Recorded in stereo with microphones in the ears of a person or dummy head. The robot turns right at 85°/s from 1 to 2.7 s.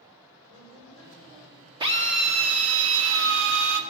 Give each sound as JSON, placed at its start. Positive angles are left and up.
{"t": 0.5, "sound": "a woman speaking", "azimuth_deg": 160, "distance_m": 4.5}
{"t": 1.8, "sound": "a drill", "azimuth_deg": -155, "distance_m": 1.2}